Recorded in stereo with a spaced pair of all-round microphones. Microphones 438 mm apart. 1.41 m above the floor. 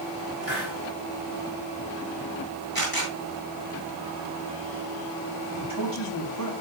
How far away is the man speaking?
About 5 m.